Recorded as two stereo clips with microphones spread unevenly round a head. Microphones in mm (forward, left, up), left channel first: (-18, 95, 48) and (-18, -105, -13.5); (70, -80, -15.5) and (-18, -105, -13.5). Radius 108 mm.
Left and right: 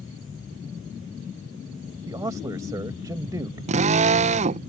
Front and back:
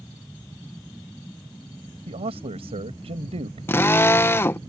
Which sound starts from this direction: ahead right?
A drill, at 3.7 s.